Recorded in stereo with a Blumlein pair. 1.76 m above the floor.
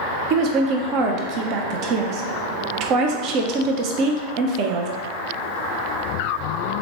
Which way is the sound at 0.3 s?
40° right.